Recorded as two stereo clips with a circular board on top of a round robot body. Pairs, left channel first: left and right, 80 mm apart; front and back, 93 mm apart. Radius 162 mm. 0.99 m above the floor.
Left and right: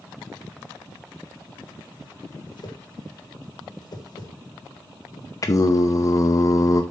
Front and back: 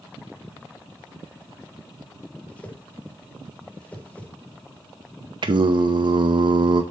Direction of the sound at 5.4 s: 140° left.